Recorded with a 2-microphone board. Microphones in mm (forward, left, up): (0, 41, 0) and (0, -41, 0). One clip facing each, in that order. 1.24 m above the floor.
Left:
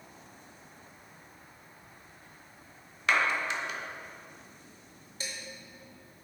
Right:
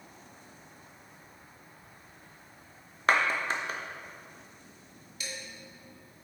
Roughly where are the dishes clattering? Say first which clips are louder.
Even; left.